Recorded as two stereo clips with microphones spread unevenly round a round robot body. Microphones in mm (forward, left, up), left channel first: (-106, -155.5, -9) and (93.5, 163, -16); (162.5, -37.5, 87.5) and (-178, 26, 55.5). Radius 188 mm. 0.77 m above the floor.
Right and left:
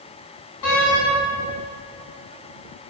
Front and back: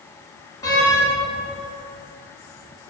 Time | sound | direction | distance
0.6 | a door slam | 90° right | 4.5 m